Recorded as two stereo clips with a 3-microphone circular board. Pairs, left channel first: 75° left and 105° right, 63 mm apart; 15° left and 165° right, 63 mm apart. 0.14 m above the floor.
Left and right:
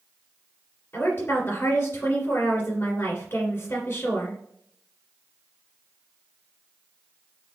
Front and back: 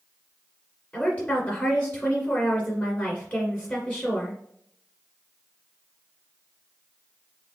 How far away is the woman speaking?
About 1.8 m.